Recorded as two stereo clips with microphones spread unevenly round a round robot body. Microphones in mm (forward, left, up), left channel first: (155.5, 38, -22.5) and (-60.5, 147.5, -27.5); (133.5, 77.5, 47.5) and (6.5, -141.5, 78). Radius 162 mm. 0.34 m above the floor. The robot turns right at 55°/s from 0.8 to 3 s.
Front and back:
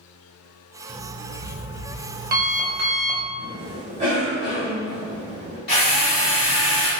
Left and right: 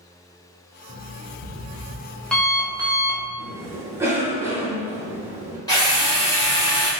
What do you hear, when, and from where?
0.9 s an alarm clock: 60° left, 0.5 m; by 3.3 s 175° left, 0.5 m
3.4 s a cough: 155° left, 1.2 m
5.7 s a drill: straight ahead, 1.7 m